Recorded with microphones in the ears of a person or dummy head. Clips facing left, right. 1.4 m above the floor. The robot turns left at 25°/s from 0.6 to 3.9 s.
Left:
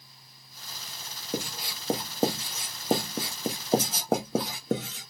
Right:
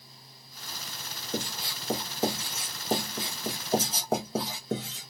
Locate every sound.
1.3 s writing: 10° left (ahead or behind), 0.8 m; by 5.1 s 50° left (ahead or behind), 0.8 m